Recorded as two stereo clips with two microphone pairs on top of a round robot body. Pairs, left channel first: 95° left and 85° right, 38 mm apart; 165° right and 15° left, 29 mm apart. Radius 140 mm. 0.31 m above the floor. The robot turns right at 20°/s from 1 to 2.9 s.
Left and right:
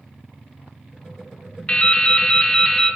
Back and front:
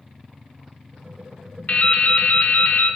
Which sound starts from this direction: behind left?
Dripping, at 1.7 s.